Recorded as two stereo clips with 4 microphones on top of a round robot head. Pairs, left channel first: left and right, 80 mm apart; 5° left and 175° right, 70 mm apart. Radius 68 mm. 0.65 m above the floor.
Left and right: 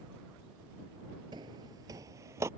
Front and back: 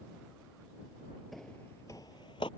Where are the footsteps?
85° right; by 2.5 s 40° right.